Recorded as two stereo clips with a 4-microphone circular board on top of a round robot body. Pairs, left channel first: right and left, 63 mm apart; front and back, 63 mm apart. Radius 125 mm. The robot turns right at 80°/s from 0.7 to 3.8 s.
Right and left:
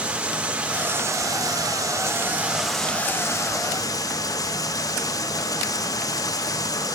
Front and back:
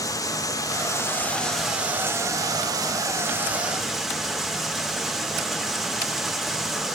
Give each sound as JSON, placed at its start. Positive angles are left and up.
{"t": 0.0, "sound": "running water", "azimuth_deg": 20, "distance_m": 2.5}